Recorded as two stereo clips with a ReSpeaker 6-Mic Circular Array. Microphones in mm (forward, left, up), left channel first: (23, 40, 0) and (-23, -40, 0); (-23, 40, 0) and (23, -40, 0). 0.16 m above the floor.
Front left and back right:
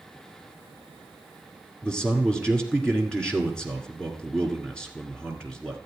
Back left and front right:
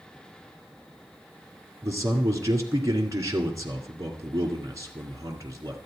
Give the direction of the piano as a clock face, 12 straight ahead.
No piano in this recording.